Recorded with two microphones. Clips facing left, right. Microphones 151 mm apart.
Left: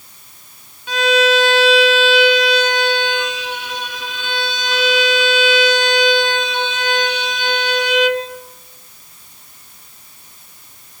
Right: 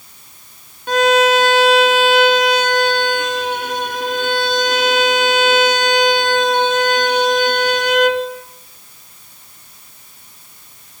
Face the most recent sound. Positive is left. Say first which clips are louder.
# right 2 dB
turn(degrees=-55)  # may be behind; listen again after turning